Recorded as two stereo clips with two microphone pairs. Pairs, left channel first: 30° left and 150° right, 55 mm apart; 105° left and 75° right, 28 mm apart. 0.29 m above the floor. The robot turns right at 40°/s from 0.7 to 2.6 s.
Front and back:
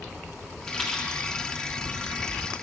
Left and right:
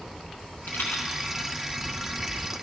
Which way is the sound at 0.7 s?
110° left.